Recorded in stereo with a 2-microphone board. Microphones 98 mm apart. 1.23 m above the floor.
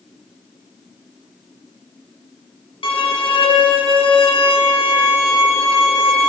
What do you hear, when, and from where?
2.8 s a violin: 65° left (ahead or behind), 0.8 m